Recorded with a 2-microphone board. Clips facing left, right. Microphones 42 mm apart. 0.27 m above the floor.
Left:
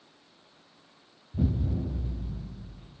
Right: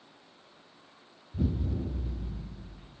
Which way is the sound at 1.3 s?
30° left (ahead or behind).